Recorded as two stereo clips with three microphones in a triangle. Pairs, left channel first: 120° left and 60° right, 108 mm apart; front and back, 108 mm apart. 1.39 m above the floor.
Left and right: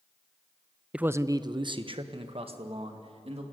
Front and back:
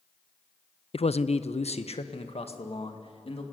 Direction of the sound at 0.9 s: 20° left.